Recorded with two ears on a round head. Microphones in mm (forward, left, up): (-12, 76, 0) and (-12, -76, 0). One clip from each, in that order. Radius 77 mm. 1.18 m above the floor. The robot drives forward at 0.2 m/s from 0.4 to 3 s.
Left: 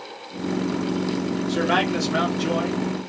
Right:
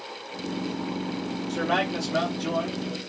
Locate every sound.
1.5 s a man speaking: 75° left (ahead or behind), 1.5 m; by 2.8 s 70° left (ahead or behind), 1.6 m